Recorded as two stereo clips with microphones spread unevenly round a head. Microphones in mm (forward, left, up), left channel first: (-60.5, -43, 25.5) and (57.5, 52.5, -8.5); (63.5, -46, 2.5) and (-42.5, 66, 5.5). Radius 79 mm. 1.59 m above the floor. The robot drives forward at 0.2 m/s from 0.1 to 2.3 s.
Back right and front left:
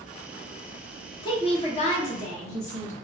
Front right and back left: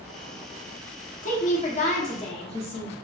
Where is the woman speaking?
85° right, 0.8 m; by 2.9 s 105° right, 0.8 m.